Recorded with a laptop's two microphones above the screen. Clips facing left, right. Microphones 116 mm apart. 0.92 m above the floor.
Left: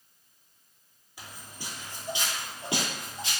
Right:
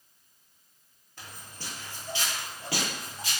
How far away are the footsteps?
About 1.0 m.